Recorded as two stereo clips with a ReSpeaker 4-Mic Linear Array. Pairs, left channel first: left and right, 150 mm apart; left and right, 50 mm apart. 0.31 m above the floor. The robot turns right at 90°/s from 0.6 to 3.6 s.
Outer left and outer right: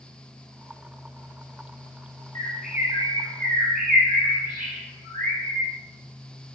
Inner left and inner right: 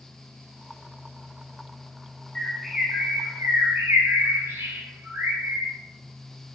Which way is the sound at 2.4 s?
25° left (ahead or behind).